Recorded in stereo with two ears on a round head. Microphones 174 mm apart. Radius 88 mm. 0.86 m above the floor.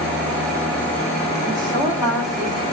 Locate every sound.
1.4 s a woman speaking: 25° right (ahead or behind), 6 m; by 2.6 s 20° right (ahead or behind), 6.5 m